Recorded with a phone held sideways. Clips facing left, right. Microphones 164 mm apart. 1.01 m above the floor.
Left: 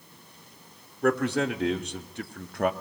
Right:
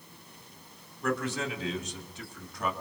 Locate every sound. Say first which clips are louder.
1.0 s a man speaking: left 7 dB; 60° left (ahead or behind), 2.0 m; by 2.7 s 55° left (ahead or behind), 1.1 m